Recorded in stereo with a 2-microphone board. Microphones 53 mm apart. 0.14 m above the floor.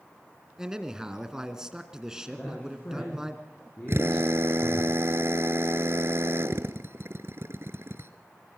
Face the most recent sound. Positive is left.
turn(degrees=-55)  # may be behind; listen again after turning